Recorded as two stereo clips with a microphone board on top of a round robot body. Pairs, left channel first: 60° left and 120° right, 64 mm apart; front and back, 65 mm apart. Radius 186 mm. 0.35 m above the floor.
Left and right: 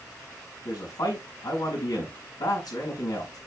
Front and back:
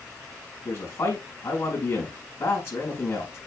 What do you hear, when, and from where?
0.7 s a man speaking: 55° left, 5 m